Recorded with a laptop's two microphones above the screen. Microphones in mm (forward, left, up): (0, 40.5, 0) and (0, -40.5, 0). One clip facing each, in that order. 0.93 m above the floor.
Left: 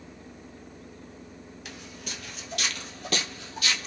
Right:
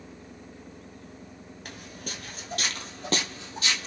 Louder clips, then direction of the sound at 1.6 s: Right 2 dB; 45° right (ahead or behind).